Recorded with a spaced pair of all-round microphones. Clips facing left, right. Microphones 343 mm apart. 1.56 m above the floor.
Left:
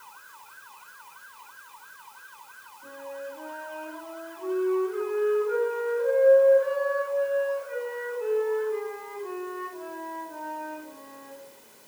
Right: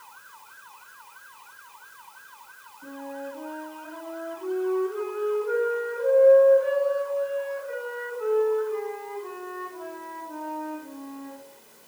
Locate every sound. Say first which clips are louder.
2.8 s a flute: right 2 dB; 70° right (ahead or behind), 4 m